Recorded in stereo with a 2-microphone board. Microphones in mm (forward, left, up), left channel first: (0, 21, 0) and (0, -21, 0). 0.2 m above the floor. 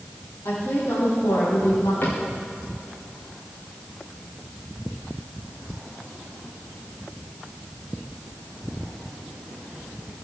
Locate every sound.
0.5 s a woman speaking: 80° left, 6.5 m; by 1.9 s 75° left (ahead or behind), 5.5 m
2.0 s a cupboard door: 50° left (ahead or behind), 5 m